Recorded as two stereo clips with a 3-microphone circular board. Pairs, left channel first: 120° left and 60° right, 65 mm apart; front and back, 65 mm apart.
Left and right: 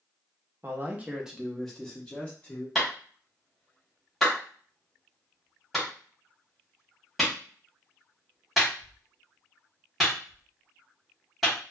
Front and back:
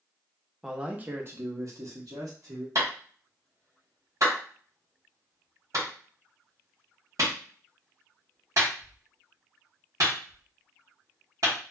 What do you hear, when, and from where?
0.6 s a man speaking: 100° right, 0.7 m; by 2.6 s 175° right, 1.3 m
2.8 s a clap: 150° right, 1.3 m